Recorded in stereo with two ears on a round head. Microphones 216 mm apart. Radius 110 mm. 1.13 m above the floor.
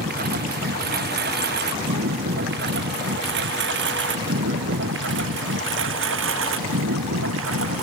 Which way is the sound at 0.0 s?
40° right (ahead or behind).